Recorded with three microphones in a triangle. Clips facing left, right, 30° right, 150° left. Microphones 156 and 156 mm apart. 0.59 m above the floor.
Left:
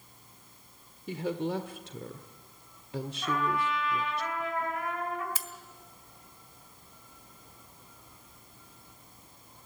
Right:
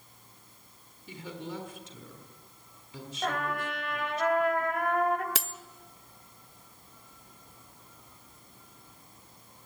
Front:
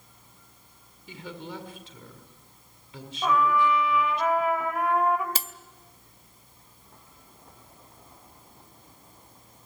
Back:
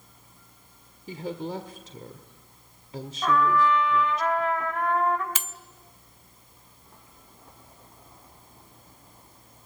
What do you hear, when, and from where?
1.1 s a woman speaking: 105° left, 1.7 m
3.2 s a trumpet: 110° right, 2 m
5.3 s cutlery clinking: 85° right, 0.7 m